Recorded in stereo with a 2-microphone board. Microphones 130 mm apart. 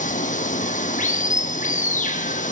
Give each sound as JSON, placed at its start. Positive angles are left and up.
{"t": 0.0, "sound": "running water", "side_deg": 90, "distance_m": 0.9}